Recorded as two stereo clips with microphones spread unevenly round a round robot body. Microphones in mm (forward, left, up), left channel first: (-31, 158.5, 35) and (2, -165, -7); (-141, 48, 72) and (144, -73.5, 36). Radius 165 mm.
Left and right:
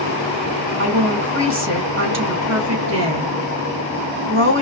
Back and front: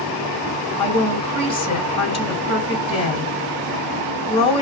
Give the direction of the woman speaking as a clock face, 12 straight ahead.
4 o'clock.